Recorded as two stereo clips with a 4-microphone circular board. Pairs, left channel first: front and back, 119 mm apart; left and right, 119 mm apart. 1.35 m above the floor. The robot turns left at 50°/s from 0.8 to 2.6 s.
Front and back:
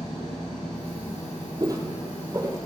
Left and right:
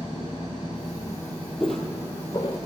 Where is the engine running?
45° left, 5 m; by 2.6 s 45° right, 5 m.